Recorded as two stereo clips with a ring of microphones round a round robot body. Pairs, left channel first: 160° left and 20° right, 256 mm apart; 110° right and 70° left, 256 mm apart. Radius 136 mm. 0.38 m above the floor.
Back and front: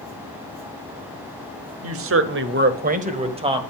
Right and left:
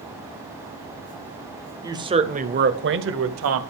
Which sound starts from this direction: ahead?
A woman speaking, at 1.8 s.